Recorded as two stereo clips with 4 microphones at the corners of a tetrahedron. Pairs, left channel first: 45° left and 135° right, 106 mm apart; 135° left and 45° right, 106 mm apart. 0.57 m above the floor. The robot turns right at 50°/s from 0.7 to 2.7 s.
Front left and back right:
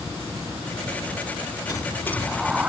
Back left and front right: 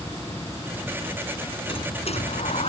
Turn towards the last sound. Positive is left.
turn(degrees=150)